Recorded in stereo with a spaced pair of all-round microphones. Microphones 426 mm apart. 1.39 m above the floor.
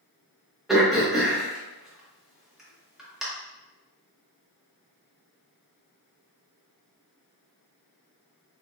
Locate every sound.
0.7 s throat clearing: centre (ahead or behind), 1.0 m